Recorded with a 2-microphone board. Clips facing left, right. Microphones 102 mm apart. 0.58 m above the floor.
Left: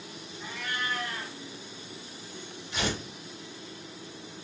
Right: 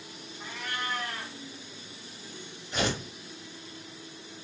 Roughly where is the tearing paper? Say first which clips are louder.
Right 2 dB; right.